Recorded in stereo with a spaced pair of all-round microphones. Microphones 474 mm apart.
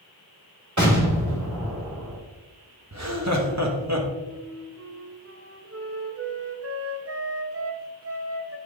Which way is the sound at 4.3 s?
30° right (ahead or behind).